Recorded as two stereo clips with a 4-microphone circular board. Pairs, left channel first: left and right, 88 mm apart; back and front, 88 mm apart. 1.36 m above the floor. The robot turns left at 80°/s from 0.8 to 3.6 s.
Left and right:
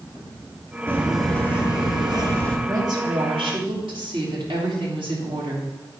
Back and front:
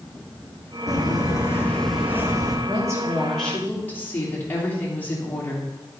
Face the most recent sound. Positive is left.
turn(degrees=-110)